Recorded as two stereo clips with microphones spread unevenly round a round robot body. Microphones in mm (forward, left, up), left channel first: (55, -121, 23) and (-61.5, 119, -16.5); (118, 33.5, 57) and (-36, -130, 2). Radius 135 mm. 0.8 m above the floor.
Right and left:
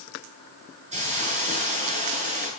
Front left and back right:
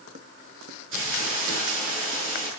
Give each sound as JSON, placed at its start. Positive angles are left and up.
{"t": 0.9, "sound": "a hiss", "azimuth_deg": 180, "distance_m": 8.0}